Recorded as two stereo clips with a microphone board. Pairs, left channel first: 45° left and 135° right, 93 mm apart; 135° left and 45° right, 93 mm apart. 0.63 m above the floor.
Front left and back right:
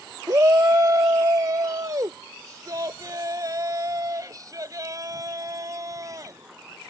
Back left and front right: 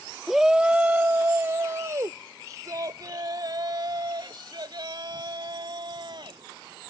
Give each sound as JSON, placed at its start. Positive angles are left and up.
{"t": 0.3, "sound": "a shout", "azimuth_deg": -130}